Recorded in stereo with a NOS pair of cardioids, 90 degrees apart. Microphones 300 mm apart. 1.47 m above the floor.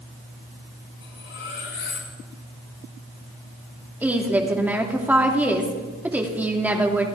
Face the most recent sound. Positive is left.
turn(degrees=-5)